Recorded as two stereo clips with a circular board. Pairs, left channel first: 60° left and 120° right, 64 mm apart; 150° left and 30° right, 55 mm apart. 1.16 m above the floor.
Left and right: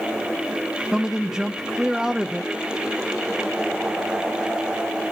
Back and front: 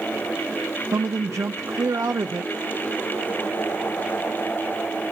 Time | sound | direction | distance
0.9 | a man speaking | 35° right | 0.7 m